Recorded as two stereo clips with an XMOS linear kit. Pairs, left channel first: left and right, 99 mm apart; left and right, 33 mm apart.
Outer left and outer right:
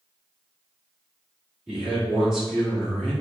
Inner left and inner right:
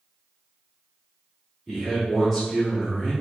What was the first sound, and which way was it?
A man speaking, 5° right (ahead or behind).